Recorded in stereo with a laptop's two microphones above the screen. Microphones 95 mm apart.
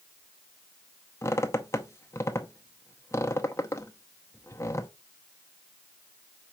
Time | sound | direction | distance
1.2 | a squeak | 30° left (ahead or behind) | 0.6 m